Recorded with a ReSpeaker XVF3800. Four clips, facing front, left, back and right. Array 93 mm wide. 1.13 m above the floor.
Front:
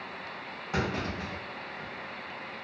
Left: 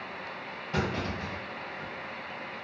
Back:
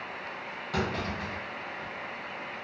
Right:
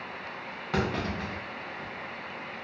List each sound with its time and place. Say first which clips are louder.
0.7 s a clunk: right 2 dB, even; 75° right, 0.7 m